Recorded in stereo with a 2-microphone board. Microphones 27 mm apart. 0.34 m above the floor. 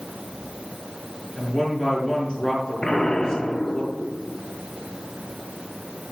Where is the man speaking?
25° left (ahead or behind), 5 m.